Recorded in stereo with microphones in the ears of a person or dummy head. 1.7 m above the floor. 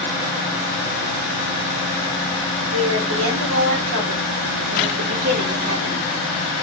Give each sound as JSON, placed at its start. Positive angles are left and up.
{"t": 2.7, "sound": "a woman speaking", "side_deg": -80, "distance_m": 1.4}